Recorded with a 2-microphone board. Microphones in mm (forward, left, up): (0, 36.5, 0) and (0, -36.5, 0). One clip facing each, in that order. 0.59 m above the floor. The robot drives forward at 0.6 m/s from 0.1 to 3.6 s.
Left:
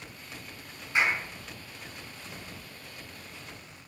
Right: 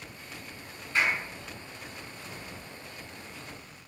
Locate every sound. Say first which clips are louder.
0.9 s a clap: left 1 dB; 15° left (ahead or behind), 5 m